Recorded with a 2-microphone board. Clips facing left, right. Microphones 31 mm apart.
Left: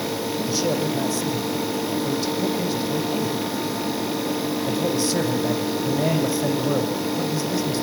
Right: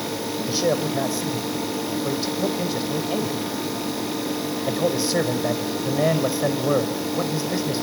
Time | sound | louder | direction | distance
0.5 | a man speaking | right 2 dB | 15° right (ahead or behind) | 5 m